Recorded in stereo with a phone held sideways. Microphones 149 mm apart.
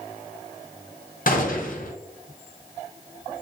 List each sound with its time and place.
1.3 s a gunshot: 70° left (ahead or behind), 0.7 m